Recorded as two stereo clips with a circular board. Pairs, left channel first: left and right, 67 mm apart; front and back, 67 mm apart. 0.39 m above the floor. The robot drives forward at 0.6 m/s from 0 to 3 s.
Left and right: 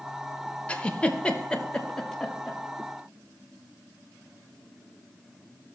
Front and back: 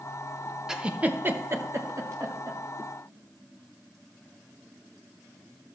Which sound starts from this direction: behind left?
A giggle, at 0.7 s.